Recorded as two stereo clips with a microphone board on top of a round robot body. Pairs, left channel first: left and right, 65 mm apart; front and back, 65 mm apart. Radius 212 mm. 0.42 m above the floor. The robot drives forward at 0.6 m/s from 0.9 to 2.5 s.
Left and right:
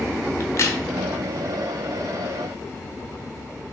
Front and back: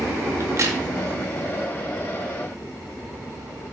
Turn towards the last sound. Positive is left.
turn(degrees=165)